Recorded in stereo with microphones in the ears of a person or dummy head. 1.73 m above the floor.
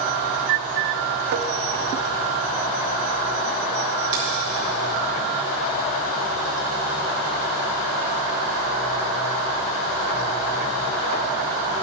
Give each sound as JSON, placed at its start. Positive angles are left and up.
{"t": 1.3, "sound": "tapping", "side_deg": -55, "distance_m": 0.7}
{"t": 4.1, "sound": "a finger snap", "side_deg": -40, "distance_m": 3.0}